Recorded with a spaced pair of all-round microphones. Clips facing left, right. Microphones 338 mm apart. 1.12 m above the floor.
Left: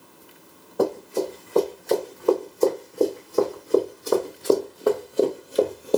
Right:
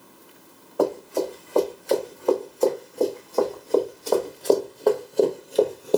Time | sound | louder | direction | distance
0.8 | running footsteps | even | 25° left (ahead or behind) | 3 m